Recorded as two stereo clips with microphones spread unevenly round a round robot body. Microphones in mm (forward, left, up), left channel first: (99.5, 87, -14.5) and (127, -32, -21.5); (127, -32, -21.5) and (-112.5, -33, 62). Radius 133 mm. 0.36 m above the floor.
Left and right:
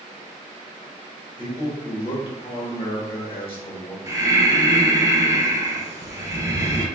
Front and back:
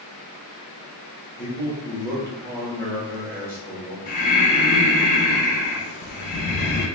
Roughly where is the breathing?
Ahead.